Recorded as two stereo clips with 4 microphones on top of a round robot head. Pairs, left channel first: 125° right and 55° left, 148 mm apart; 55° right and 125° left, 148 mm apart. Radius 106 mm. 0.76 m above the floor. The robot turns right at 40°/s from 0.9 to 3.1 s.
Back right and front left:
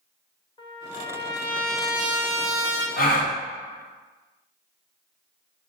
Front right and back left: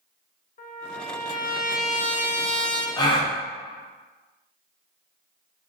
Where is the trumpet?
70° right, 0.6 m; by 2.9 s 5° left, 0.6 m.